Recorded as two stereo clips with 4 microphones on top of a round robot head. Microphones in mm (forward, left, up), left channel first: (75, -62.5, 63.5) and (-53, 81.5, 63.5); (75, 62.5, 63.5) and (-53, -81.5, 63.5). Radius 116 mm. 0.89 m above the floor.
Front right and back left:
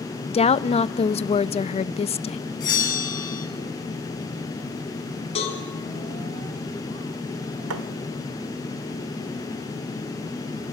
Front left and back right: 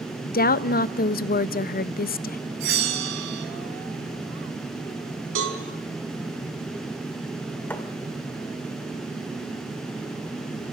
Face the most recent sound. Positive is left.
turn(degrees=130)